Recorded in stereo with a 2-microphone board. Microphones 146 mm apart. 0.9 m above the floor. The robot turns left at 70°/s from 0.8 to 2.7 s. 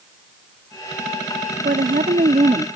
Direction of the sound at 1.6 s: 70° right.